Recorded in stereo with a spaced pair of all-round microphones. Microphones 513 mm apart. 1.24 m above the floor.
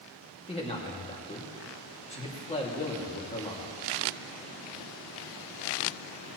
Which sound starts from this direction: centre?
A man speaking, at 0.5 s.